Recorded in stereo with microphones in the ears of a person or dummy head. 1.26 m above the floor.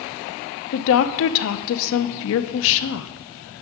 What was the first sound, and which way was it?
A woman speaking, 70° left (ahead or behind).